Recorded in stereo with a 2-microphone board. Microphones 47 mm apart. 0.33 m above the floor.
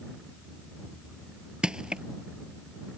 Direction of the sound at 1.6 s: 20° right (ahead or behind).